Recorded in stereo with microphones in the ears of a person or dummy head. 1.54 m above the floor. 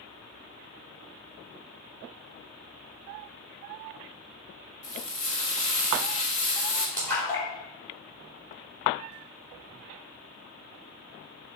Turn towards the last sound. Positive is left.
turn(degrees=10)  # may be behind; listen again after turning